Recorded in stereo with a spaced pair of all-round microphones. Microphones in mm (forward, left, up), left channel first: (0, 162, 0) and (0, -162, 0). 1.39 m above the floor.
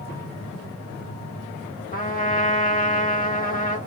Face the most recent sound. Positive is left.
turn(degrees=25)  # may be behind; listen again after turning